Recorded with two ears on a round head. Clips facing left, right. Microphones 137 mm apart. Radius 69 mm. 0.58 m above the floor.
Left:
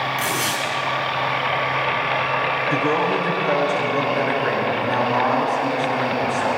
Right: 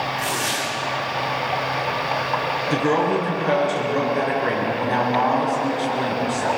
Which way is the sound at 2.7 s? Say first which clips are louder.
Right 2 dB; 20° right (ahead or behind).